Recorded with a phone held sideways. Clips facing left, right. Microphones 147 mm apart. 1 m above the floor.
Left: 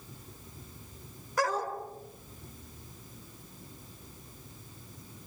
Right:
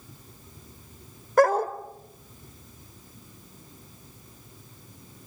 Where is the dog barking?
55° right (ahead or behind), 1.8 m.